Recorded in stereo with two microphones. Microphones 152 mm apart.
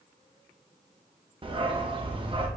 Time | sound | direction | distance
1.4 | a dog barking | 35° right (ahead or behind) | 0.6 m